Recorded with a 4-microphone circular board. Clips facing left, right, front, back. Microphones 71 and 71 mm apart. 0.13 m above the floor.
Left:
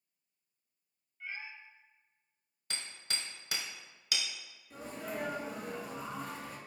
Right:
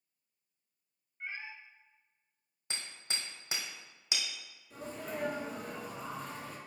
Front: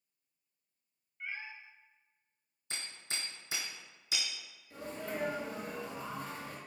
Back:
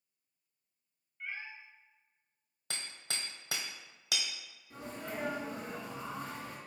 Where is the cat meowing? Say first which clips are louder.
Right 1 dB, even; 80° right, 0.9 m.